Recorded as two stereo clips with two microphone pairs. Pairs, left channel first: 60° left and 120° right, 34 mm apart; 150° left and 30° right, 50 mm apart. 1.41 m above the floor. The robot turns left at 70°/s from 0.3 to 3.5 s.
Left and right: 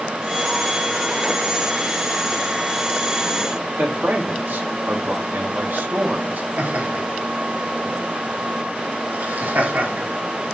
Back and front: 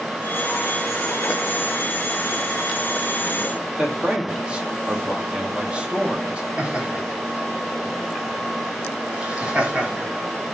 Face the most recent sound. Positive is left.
turn(degrees=-100)